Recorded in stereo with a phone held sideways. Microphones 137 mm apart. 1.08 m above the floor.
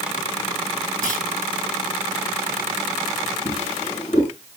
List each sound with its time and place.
1.0 s a clunk: 80° left, 4 m
3.5 s a drawer: 55° left (ahead or behind), 7.5 m